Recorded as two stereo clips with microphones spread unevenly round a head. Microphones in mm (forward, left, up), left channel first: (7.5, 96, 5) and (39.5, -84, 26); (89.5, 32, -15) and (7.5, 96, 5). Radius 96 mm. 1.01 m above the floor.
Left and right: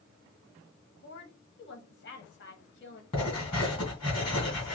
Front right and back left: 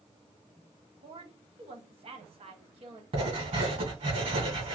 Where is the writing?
165° left, 2.5 m.